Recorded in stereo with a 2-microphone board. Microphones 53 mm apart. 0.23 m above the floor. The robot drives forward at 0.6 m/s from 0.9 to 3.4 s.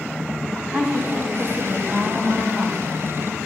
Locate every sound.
0.7 s a woman speaking: 30° right (ahead or behind), 1.7 m; by 2.9 s 25° right (ahead or behind), 2 m